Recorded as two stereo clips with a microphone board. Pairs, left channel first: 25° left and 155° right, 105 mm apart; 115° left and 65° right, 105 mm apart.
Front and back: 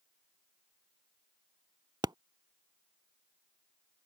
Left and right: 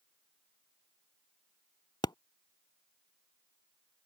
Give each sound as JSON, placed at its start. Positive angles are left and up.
{"t": 2.0, "sound": "a pop", "azimuth_deg": 155}